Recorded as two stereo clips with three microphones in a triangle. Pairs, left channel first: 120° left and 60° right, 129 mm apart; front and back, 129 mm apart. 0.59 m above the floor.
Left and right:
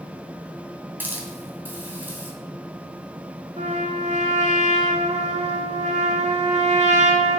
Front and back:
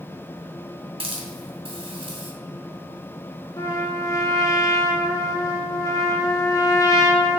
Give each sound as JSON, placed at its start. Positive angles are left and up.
{"t": 1.0, "sound": "a hiss", "azimuth_deg": -135, "distance_m": 2.5}
{"t": 3.6, "sound": "a trumpet", "azimuth_deg": -60, "distance_m": 1.4}